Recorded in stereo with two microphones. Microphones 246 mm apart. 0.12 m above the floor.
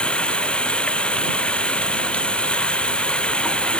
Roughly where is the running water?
Centre.